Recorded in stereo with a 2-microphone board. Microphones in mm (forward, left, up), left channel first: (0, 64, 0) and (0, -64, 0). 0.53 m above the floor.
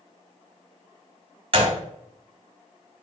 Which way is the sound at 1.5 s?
50° right (ahead or behind).